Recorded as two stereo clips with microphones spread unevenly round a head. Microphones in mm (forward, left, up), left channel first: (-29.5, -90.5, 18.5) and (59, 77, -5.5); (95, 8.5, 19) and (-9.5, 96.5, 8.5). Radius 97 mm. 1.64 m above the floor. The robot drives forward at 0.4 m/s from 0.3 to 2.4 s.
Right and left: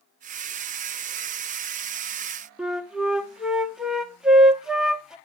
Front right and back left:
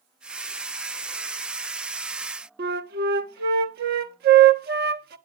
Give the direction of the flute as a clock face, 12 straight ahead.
7 o'clock.